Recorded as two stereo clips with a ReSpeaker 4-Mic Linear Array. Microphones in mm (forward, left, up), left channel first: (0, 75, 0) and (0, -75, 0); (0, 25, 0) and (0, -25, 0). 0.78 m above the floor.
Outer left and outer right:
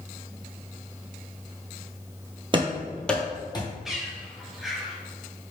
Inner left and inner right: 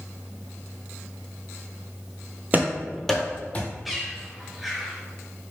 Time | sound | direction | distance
2.5 | running footsteps | 35° right (ahead or behind) | 0.9 m
3.9 | a bird | 5° right (ahead or behind) | 1.0 m